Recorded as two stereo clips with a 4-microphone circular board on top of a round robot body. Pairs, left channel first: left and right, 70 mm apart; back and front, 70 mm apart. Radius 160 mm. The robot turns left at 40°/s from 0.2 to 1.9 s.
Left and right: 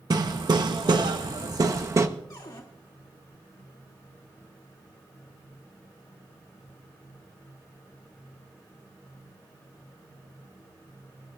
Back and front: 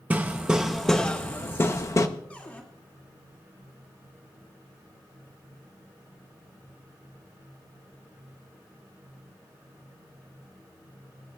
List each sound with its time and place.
0.1 s hammering: 70° right, 0.9 m; by 2.1 s 135° right, 0.9 m
2.3 s a cupboard door: 110° left, 2 m